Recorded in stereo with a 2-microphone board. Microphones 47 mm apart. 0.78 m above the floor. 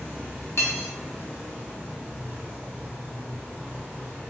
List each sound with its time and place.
0.6 s cutlery clinking: 70° left (ahead or behind), 0.6 m